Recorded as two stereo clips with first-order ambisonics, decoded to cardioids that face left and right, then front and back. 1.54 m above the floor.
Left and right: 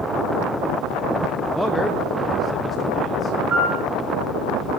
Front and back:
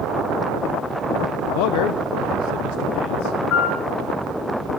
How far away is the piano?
About 5.5 m.